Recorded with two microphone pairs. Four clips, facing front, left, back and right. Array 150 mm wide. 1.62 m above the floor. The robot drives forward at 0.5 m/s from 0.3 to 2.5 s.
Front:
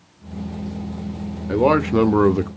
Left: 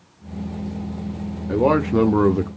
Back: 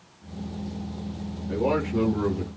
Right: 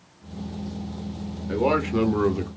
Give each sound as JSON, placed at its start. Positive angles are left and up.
{"t": 1.5, "sound": "a man speaking", "azimuth_deg": 10, "distance_m": 1.0}